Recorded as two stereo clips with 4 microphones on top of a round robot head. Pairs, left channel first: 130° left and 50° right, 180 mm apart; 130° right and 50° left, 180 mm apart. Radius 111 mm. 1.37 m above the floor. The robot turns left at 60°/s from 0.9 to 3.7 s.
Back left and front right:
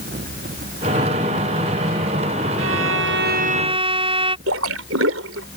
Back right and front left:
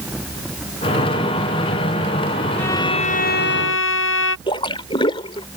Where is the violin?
50° right; by 4.4 s 115° right.